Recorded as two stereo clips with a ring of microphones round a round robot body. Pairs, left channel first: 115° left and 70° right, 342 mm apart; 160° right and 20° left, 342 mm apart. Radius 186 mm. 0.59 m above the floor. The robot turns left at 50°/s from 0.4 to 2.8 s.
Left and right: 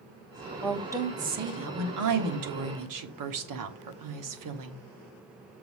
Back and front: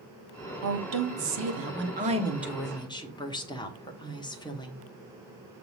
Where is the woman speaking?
25° left, 1.5 m; by 4.8 s 80° right, 1.5 m.